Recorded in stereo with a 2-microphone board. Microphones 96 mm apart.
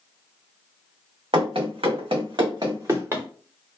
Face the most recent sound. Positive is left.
turn(degrees=-25)  # may be behind; listen again after turning